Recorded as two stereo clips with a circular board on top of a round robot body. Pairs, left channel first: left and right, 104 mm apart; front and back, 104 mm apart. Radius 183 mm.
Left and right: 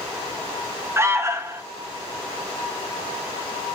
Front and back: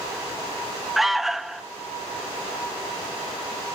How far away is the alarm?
About 1.3 m.